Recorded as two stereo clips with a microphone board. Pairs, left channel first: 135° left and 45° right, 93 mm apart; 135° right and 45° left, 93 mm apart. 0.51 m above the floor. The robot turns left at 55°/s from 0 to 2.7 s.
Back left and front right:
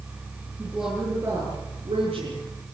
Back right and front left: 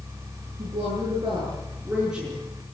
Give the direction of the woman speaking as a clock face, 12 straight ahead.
10 o'clock.